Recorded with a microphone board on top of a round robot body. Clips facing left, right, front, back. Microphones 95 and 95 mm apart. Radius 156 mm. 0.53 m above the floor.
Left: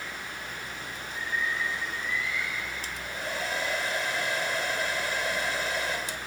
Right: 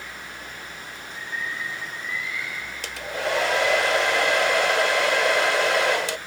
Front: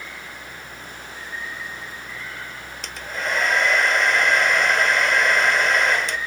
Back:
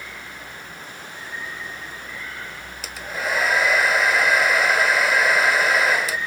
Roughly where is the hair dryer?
Right.